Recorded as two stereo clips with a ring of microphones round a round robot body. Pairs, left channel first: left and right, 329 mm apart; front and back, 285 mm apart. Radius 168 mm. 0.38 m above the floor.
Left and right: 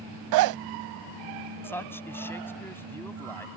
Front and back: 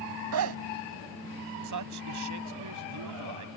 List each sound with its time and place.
0.3 s a zipper: 130° right
1.6 s a man speaking: 175° left